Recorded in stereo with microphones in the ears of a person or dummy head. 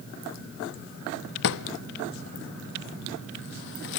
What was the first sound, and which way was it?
A drawer, 60° left (ahead or behind).